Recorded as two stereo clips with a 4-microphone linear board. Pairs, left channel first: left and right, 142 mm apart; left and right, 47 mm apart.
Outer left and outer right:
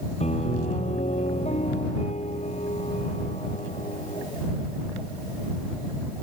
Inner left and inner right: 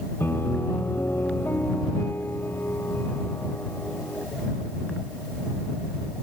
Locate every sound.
0.2 s a piano: 55° left (ahead or behind)